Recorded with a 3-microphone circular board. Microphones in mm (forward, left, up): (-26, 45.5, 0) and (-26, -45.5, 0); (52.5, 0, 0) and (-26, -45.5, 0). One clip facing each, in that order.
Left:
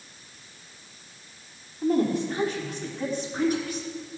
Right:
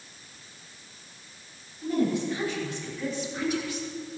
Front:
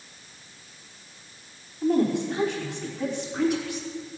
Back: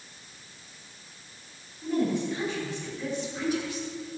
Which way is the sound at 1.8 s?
45° left.